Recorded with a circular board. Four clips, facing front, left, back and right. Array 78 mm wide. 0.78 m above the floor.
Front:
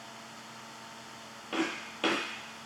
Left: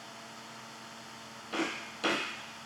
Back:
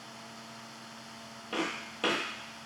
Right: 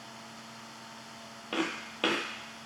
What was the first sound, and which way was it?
Footsteps, 85° right.